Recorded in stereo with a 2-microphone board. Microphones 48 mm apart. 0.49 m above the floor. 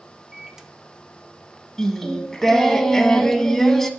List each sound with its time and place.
0.3 s a microwave: 10° right (ahead or behind), 0.6 m
1.8 s singing: 5° left (ahead or behind), 0.5 m